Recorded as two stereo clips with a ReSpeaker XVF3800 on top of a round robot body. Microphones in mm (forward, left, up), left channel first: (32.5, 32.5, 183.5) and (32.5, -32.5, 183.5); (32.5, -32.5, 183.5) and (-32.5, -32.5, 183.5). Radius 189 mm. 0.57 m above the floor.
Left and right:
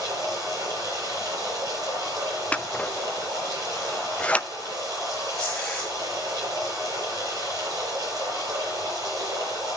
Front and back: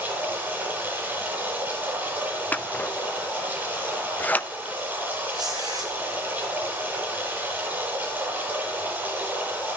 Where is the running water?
115° right, 7.5 m.